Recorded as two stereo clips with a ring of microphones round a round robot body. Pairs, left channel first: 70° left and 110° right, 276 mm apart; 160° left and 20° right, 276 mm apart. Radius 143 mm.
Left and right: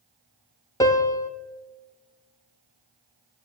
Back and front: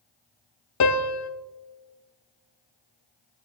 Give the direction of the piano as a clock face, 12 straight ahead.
7 o'clock.